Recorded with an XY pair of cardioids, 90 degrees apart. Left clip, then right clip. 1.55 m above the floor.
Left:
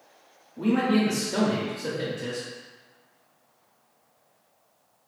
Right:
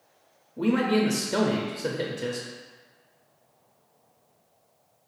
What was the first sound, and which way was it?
A man speaking, 40° right.